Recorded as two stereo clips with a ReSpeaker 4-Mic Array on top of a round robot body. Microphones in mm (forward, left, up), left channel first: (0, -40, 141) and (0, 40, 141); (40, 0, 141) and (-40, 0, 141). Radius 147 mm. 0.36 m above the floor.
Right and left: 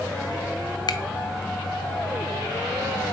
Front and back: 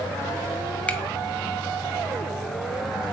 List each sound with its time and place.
0.9 s a finger snap: 70° right, 1.1 m